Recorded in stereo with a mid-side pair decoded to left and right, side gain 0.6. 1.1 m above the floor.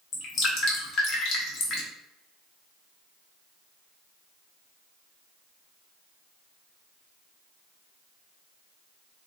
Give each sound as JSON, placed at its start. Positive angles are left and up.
{"t": 0.1, "sound": "dripping", "azimuth_deg": 55, "distance_m": 1.4}